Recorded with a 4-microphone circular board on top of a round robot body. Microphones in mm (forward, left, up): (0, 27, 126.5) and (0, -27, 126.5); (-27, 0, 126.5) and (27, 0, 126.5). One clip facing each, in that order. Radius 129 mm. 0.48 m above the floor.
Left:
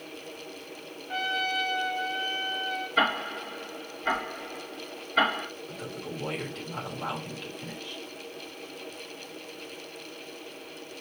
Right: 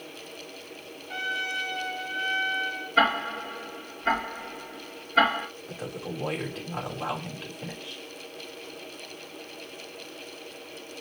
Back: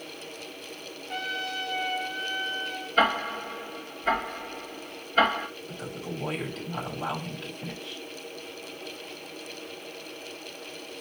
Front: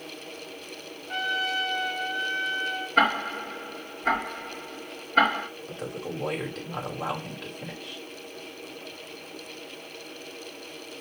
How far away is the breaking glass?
I don't hear breaking glass.